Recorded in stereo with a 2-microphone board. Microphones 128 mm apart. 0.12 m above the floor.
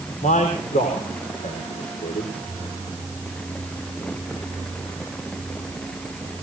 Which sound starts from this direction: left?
A man speaking, at 0.2 s.